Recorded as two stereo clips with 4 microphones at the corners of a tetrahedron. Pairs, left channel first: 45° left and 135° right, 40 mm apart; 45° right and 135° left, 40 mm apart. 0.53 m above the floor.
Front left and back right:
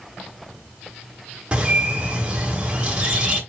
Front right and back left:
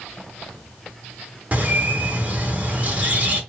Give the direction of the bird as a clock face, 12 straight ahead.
6 o'clock.